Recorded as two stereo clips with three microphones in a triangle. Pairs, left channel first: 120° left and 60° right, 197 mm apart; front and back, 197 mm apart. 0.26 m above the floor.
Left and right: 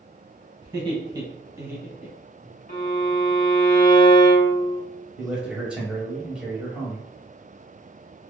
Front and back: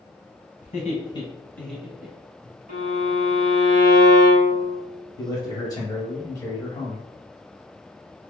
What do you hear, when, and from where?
0.6 s laughter: 10° right, 1.2 m; by 2.5 s 145° right, 1.0 m
2.7 s a violin: 145° left, 0.6 m
5.2 s a man speaking: 15° left, 0.9 m